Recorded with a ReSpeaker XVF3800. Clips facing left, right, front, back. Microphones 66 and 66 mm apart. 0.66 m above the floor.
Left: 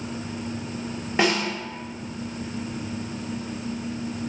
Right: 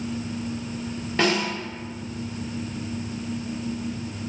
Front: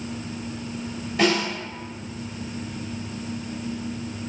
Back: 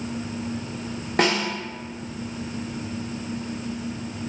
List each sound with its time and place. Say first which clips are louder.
1.2 s a snare drum: even, front 1 dB; 160° left, 1.1 m